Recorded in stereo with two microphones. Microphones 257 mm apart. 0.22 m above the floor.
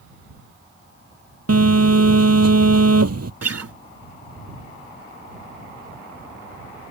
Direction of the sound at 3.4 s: 70° right (ahead or behind).